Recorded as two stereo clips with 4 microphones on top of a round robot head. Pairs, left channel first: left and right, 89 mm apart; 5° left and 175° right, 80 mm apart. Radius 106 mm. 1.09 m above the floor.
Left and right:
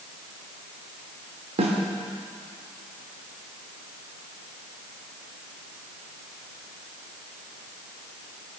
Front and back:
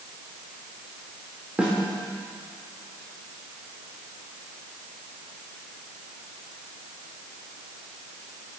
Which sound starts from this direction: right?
A snare drum, at 1.6 s.